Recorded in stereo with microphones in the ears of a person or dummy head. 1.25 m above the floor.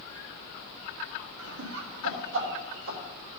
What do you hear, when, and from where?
1.4 s laughter: 80° right, 1.9 m; by 3.0 s 55° right (ahead or behind), 3 m